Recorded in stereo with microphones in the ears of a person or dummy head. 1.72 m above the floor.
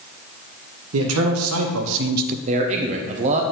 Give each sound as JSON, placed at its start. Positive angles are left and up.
{"t": 0.9, "sound": "a man speaking", "side_deg": -85, "distance_m": 1.3}
{"t": 2.5, "sound": "a man speaking", "side_deg": -35, "distance_m": 0.7}